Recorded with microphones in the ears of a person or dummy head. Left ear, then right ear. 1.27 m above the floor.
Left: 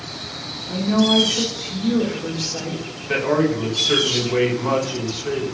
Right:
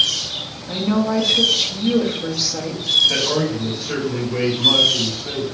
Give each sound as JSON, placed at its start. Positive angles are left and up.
{"t": 0.7, "sound": "a woman speaking", "side_deg": -60, "distance_m": 1.0}
{"t": 3.1, "sound": "a man speaking", "side_deg": 85, "distance_m": 1.6}